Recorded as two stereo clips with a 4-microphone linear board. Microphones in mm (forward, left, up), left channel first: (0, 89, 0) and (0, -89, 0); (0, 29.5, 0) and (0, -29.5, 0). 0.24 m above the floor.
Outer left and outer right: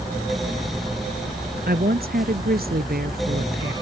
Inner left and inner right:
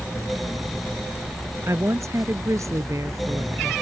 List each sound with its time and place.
1.6 s a woman speaking: 60° right (ahead or behind)